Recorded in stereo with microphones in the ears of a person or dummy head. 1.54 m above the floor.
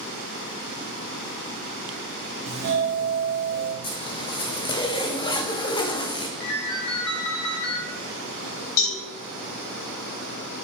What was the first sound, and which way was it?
A doorbell, 50° right (ahead or behind).